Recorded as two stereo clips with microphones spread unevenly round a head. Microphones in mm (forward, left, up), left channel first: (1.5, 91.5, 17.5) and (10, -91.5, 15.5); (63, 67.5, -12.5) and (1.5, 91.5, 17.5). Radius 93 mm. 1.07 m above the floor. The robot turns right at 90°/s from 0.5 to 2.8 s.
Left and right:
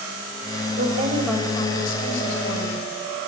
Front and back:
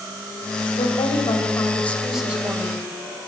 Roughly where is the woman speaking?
Ahead right.